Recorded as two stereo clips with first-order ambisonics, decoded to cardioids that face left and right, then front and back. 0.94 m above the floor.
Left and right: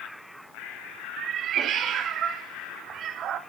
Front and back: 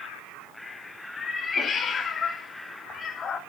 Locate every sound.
1.2 s a cat meowing: 60° right, 0.5 m